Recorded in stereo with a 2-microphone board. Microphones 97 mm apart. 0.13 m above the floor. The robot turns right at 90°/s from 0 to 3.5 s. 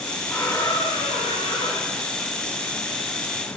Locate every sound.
0.3 s a squeak: 10° left, 5.5 m; by 2.0 s 165° left, 5.5 m